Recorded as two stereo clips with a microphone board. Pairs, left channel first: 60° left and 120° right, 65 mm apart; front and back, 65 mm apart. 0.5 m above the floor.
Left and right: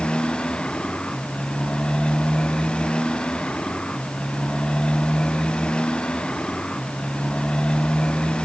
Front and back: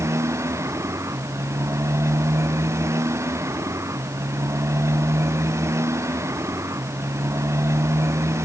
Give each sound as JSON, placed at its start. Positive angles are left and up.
{"t": 0.0, "sound": "a motorcycle", "azimuth_deg": 135}